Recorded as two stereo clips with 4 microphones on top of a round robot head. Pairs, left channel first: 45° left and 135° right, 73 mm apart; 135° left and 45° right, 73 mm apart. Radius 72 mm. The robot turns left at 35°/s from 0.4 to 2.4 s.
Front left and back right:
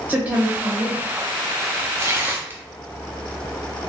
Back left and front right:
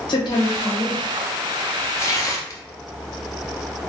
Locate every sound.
0.1 s a woman speaking: 150° left, 1.1 m; by 1.0 s 130° left, 1.1 m
2.0 s tearing paper: straight behind, 0.6 m; by 2.6 s 165° left, 0.6 m